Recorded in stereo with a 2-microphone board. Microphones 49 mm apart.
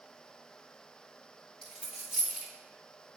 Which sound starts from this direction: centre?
A dropped coin, at 1.6 s.